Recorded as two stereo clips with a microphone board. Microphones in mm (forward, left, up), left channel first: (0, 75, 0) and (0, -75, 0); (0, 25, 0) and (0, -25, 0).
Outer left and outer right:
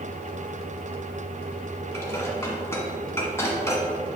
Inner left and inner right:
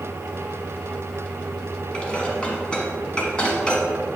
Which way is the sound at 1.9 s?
20° left (ahead or behind).